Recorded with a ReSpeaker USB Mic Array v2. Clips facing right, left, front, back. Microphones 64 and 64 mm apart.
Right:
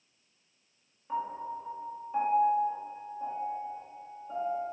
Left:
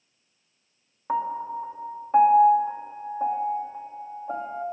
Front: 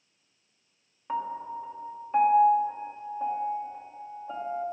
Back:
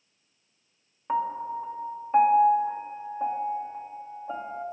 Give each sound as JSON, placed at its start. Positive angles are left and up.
{"t": 1.1, "sound": "a piano", "azimuth_deg": 110, "distance_m": 1.4}